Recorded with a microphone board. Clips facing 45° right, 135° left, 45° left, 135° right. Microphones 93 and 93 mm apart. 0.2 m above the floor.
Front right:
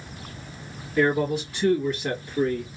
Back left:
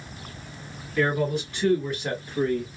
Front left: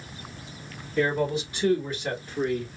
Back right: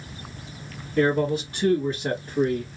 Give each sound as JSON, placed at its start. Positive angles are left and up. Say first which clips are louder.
{"t": 1.0, "sound": "a man speaking", "louder": "front right 2 dB, back right 3 dB", "azimuth_deg": -115, "distance_m": 1.9}